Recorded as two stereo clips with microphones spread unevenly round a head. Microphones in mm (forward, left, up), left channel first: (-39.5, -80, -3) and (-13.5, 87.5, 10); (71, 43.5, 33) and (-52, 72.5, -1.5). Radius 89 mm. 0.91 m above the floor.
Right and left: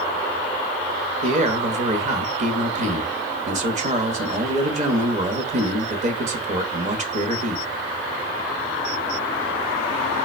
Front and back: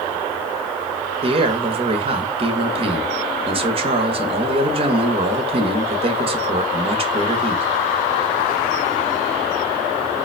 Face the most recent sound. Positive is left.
turn(degrees=130)